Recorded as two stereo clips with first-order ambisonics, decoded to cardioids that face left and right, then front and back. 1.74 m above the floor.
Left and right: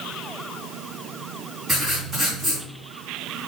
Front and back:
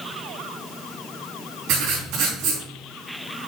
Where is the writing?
170° right, 4 m.